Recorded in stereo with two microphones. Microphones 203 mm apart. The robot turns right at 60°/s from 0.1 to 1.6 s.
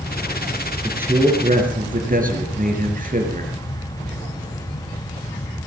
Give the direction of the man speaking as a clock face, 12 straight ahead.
6 o'clock.